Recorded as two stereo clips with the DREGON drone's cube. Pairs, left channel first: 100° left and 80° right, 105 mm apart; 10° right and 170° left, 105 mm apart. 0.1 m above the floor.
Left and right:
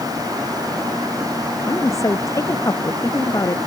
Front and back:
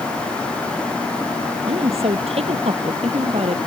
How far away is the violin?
No violin in this recording.